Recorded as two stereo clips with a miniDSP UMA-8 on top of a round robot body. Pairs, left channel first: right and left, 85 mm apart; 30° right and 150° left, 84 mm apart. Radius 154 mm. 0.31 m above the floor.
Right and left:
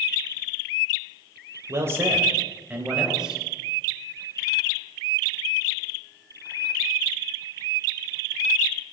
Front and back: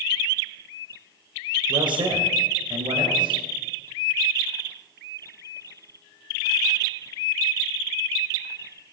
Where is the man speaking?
145° left, 2.5 m; by 3.4 s 175° left, 3 m.